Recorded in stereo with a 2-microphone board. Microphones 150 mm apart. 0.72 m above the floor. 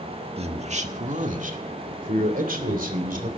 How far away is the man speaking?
About 1.6 m.